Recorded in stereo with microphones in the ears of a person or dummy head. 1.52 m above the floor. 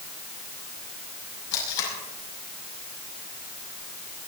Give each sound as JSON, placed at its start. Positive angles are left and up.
{"t": 1.5, "sound": "tape being pulled", "side_deg": 80, "distance_m": 5.5}